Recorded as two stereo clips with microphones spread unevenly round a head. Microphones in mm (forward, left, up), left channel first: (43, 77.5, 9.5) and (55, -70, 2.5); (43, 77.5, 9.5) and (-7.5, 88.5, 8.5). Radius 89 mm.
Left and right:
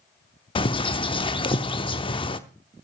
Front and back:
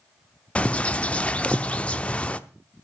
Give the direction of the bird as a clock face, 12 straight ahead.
10 o'clock.